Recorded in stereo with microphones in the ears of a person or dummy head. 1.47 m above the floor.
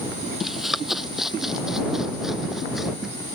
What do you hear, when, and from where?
0.4 s running footsteps: centre (ahead or behind)